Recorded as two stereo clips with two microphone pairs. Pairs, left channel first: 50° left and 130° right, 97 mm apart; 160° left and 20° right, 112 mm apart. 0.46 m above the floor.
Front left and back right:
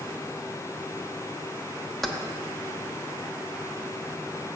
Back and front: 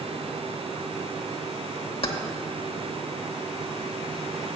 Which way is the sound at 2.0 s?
140° left.